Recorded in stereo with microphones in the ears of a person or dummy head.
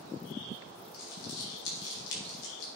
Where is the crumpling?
60° left (ahead or behind), 4 m.